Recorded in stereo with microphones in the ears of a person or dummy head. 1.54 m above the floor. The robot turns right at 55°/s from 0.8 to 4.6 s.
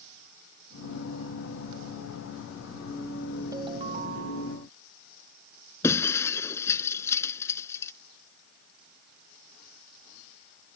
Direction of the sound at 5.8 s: 15° left (ahead or behind).